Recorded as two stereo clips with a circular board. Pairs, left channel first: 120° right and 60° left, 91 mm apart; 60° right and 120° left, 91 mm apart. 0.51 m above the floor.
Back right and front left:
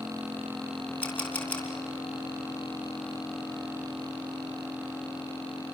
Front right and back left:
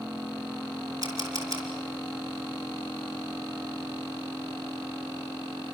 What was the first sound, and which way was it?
A camera shutter, 170° left.